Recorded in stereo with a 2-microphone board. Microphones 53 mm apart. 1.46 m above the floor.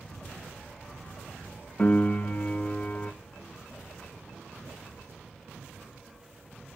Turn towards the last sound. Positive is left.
turn(degrees=30)  # may be behind; listen again after turning